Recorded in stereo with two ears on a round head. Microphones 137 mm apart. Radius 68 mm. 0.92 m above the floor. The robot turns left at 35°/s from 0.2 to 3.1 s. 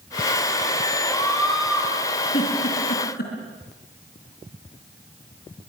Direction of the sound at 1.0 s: 20° left.